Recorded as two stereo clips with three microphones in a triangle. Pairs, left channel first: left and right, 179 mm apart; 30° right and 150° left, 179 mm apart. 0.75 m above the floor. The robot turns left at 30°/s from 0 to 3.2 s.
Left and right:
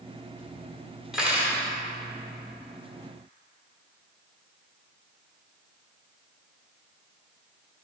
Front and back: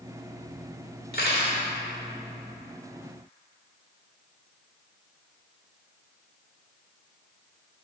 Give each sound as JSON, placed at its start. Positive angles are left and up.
{"t": 1.1, "sound": "cutlery clinking", "azimuth_deg": -5, "distance_m": 1.2}